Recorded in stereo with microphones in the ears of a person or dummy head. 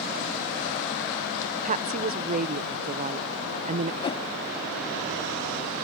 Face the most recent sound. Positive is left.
turn(degrees=25)  # may be behind; listen again after turning